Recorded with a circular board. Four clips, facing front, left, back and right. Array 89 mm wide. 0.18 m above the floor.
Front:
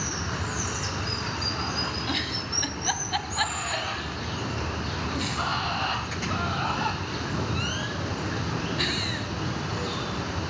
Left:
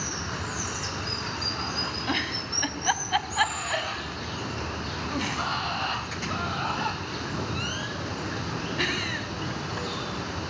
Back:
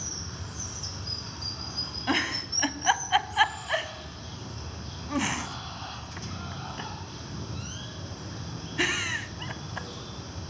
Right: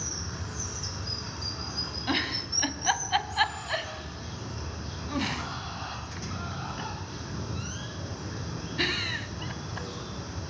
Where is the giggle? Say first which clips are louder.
Right 2 dB, back 2 dB; 165° left, 1.1 m.